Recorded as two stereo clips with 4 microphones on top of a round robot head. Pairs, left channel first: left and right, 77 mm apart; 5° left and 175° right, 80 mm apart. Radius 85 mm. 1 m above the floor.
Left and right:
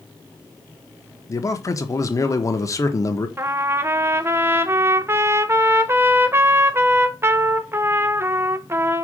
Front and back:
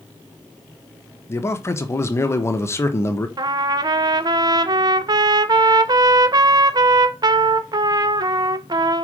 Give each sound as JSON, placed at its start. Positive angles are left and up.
{"t": 1.3, "sound": "a man speaking", "azimuth_deg": 55, "distance_m": 1.3}
{"t": 3.4, "sound": "a trumpet", "azimuth_deg": -145, "distance_m": 0.6}